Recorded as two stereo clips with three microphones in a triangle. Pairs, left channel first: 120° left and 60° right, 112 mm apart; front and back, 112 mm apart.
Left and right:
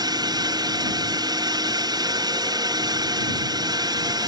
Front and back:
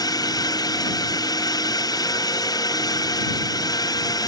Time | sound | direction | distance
0.0 | a drone | 35° right | ?